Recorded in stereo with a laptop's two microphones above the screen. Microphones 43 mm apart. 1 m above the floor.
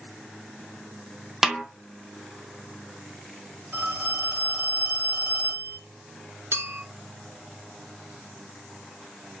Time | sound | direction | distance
1.4 | a snare drum | 5° right (ahead or behind) | 0.5 m
3.7 | a phone ringing | 55° right (ahead or behind) | 1.5 m
6.5 | a clink | 65° right (ahead or behind) | 0.7 m